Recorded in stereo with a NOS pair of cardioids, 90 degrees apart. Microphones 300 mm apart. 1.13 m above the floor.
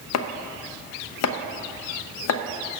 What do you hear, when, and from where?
0.1 s chopping: 60° left, 0.7 m